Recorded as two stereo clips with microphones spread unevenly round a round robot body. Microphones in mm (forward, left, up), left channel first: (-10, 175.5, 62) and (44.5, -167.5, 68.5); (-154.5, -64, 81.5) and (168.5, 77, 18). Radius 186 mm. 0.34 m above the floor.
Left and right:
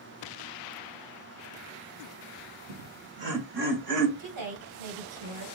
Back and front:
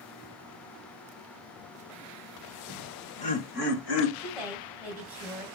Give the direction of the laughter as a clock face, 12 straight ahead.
2 o'clock.